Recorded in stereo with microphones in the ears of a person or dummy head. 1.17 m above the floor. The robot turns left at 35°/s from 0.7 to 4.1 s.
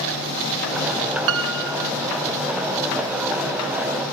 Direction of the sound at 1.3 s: 65° right (ahead or behind).